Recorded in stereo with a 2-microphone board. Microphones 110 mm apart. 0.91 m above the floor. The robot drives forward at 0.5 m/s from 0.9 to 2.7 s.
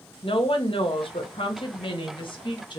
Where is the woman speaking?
55° left (ahead or behind), 1.2 m; by 2.8 s 45° left (ahead or behind), 1.4 m.